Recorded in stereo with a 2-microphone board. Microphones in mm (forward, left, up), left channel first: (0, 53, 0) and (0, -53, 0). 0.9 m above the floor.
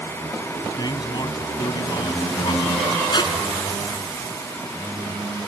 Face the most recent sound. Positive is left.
turn(degrees=45)  # may be behind; listen again after turning